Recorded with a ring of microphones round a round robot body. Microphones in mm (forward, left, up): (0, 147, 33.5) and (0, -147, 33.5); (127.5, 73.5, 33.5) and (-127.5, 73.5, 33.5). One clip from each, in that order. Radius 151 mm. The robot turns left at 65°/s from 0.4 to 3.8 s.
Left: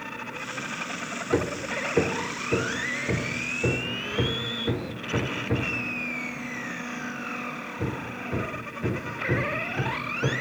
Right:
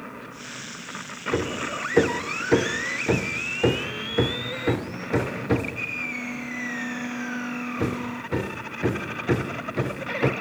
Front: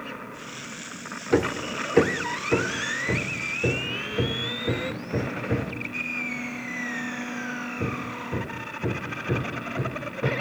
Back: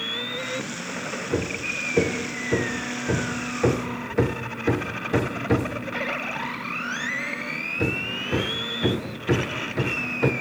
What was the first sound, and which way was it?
Hammering, 15° left.